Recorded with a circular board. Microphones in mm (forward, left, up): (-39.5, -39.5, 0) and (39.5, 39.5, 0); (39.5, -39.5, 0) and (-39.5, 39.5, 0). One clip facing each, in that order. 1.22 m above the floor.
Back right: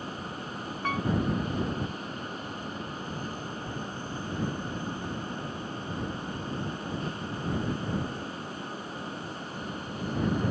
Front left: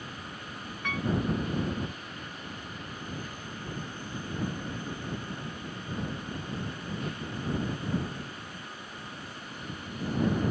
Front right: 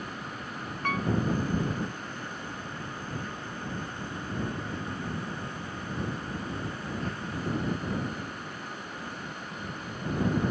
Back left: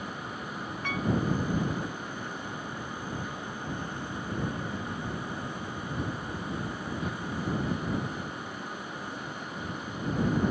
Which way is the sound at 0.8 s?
85° right.